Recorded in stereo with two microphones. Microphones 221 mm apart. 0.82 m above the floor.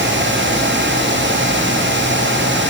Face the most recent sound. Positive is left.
No sound to turn to.